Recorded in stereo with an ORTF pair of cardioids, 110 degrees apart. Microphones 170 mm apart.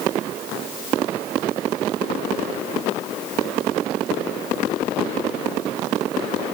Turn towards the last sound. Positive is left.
No sound to turn to.